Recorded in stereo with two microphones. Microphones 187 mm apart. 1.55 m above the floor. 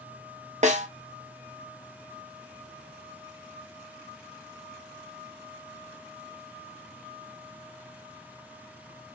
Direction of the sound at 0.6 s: 40° right (ahead or behind).